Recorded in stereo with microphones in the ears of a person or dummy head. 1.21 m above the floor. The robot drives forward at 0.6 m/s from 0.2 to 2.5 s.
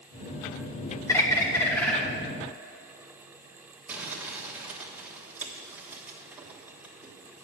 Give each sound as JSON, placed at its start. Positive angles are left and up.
{"t": 1.1, "sound": "a bird", "side_deg": 15, "distance_m": 0.7}
{"t": 3.9, "sound": "crumpling", "side_deg": -10, "distance_m": 1.2}